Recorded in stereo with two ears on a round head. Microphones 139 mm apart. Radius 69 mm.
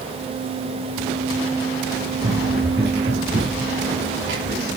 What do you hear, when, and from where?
2.2 s running footsteps: 70° right (ahead or behind), 5 m; by 4.8 s 80° right, 8 m